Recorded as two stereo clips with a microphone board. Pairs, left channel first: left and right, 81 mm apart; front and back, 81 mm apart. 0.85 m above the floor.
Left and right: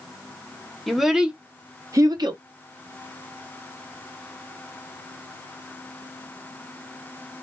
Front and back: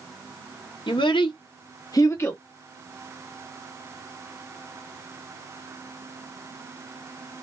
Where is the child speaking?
Straight ahead, 0.8 m; by 2.4 s 65° right, 0.6 m.